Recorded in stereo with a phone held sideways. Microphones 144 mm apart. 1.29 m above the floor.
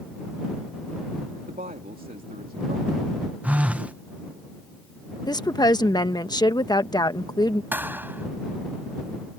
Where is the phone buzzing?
10° right (ahead or behind).